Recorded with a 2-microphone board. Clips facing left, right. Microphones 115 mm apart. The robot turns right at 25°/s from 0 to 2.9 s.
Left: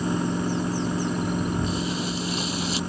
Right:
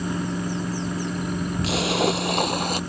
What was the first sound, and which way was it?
A splash, 75° right (ahead or behind).